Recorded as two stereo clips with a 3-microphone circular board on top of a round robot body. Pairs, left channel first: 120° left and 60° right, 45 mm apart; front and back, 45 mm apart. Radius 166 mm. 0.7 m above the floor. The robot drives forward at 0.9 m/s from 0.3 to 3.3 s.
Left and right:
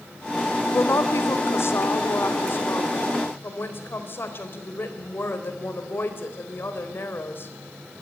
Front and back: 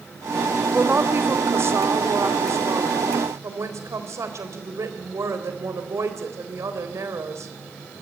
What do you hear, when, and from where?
0.7 s a woman speaking: 135° left, 1.6 m; by 7.5 s 160° left, 3.5 m